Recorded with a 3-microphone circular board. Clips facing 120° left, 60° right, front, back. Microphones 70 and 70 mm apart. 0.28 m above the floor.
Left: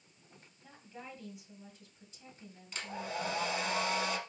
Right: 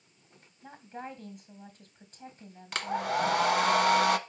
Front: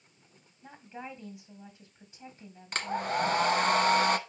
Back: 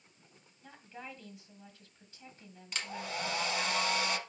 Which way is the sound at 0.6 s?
65° right.